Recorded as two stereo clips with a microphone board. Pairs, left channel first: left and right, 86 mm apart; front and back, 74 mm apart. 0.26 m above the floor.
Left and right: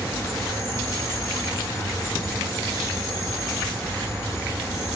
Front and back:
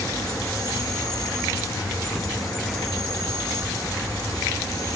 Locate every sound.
0.0 s an insect: 30° left, 1.6 m